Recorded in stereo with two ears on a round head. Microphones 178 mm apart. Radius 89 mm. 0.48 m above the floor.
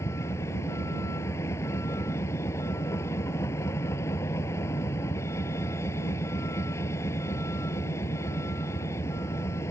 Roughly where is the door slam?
No door slam in this recording.